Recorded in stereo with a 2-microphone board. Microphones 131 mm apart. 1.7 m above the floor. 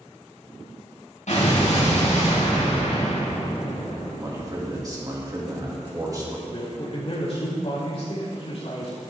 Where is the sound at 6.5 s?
50° left (ahead or behind), 3.5 m.